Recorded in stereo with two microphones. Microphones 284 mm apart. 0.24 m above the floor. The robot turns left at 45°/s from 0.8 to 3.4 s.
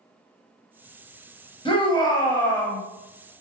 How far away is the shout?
About 1.2 m.